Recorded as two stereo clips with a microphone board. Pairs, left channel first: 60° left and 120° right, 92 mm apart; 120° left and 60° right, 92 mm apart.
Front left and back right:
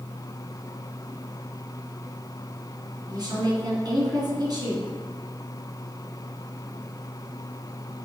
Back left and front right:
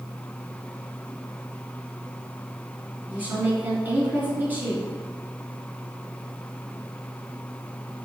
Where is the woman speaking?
120° right, 2 m.